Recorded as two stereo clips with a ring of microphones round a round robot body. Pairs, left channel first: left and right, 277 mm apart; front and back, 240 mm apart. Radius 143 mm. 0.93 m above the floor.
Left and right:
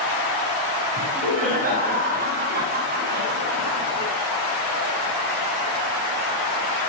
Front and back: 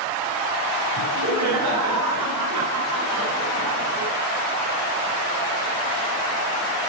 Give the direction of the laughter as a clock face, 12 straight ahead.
5 o'clock.